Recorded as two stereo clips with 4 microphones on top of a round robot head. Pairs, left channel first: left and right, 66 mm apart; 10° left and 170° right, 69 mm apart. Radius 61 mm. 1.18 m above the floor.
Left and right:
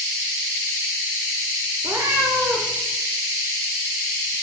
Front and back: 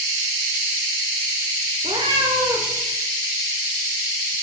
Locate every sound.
1.8 s a cat meowing: 155° right, 1.2 m